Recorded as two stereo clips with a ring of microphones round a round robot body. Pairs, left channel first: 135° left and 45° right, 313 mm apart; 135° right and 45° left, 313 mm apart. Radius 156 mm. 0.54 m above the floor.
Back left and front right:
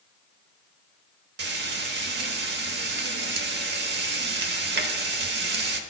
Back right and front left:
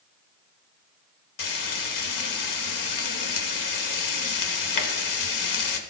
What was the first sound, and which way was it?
Frying, 105° right.